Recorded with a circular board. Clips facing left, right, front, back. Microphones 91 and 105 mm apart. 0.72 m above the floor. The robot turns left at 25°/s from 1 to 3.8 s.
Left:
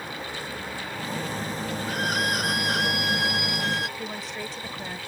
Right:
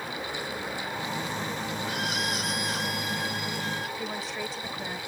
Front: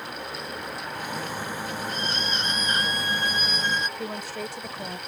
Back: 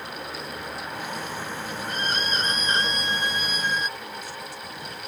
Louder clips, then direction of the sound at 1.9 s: Left 7 dB, back 2 dB; 140° left.